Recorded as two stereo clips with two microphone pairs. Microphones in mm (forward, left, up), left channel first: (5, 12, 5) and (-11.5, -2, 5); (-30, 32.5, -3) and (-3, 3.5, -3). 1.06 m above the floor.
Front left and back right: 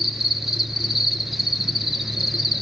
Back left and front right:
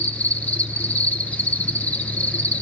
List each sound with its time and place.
0.0 s an insect: 145° left, 1.2 m